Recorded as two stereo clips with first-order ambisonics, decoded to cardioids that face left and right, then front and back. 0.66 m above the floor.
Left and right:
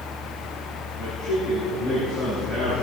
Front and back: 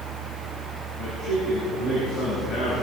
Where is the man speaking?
35° right, 6.5 m.